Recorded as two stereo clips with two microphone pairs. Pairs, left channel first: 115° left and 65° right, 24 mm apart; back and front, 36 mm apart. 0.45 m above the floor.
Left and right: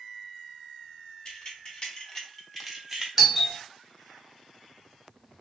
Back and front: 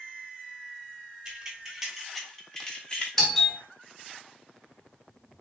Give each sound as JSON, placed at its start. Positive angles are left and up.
{"t": 1.2, "sound": "keys jangling", "azimuth_deg": 70, "distance_m": 1.3}
{"t": 3.2, "sound": "a doorbell", "azimuth_deg": -140, "distance_m": 1.1}